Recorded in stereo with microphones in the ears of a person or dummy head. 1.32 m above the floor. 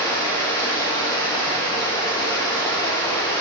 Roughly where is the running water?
Left.